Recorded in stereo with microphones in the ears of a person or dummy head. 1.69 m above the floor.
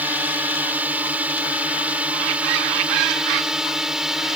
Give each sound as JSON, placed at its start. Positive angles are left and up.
{"t": 0.0, "sound": "a drone", "side_deg": -10}